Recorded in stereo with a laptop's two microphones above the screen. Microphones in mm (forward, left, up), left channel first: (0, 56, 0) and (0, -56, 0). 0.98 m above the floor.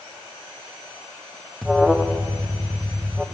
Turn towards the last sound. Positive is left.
turn(degrees=0)  # may be behind; listen again after turning